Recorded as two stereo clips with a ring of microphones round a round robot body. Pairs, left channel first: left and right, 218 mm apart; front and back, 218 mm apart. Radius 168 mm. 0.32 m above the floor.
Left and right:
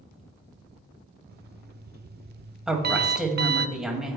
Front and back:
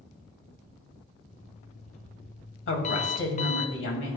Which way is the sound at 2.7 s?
5° right.